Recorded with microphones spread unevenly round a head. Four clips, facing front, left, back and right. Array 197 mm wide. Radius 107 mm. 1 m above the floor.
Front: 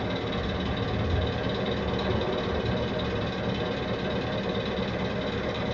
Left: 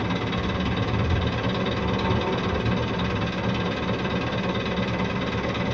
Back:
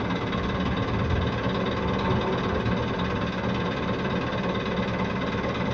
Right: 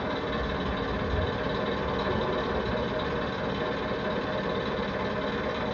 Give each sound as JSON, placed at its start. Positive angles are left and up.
{"t": 0.0, "sound": "an engine running", "azimuth_deg": 120, "distance_m": 2.5}